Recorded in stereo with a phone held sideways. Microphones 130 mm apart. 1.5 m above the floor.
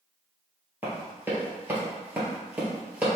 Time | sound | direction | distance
0.8 | running footsteps | 15° right (ahead or behind) | 1.7 m